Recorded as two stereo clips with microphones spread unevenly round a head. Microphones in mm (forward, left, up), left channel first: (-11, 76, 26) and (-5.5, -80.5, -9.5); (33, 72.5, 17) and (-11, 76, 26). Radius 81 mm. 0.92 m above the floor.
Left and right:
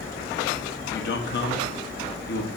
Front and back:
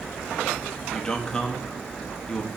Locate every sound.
0.8 s a man speaking: 65° left, 1.4 m